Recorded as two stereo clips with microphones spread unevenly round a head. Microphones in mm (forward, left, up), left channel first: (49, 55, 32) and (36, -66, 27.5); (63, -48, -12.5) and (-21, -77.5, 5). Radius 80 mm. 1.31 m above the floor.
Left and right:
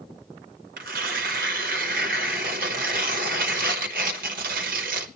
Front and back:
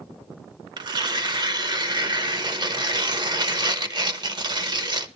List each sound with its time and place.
0.8 s tearing paper: 130° right, 1.1 m